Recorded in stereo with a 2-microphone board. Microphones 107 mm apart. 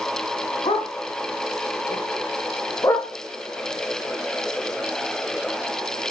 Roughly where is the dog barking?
Left.